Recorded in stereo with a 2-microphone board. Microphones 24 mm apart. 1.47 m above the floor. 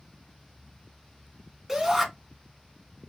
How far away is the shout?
About 2 m.